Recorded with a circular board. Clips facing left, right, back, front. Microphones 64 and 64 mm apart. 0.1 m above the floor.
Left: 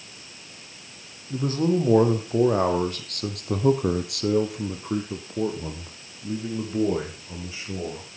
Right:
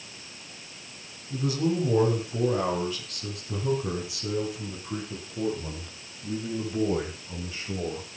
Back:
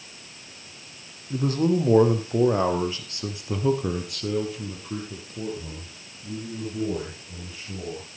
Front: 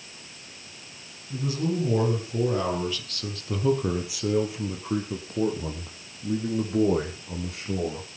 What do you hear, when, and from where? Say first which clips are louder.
1.3 s a man speaking: left 4 dB, back 5 dB; 140° left, 4.5 m; by 8.1 s 15° left, 5.5 m